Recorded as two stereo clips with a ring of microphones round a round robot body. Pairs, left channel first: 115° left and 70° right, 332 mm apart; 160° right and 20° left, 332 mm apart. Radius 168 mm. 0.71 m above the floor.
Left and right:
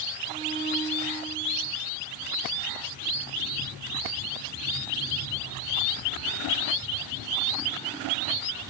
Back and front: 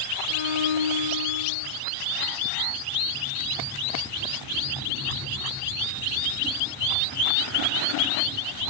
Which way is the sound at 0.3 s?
140° right.